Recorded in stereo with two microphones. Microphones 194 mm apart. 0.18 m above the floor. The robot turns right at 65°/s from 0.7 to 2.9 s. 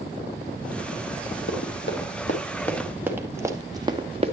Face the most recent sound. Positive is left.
turn(degrees=-35)  # may be behind; listen again after turning